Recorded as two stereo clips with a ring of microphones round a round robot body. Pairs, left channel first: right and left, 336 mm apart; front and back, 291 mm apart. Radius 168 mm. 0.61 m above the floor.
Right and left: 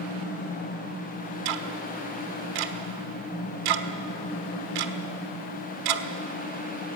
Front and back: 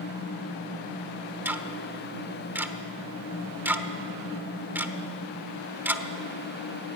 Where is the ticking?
95° left, 1.2 m.